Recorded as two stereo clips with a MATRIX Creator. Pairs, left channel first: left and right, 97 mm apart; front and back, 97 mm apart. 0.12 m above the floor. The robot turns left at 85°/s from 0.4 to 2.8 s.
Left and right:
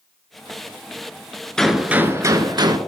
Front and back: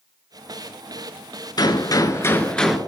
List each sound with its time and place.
1.6 s a gunshot: 10° left, 0.5 m; by 2.8 s 95° right, 0.5 m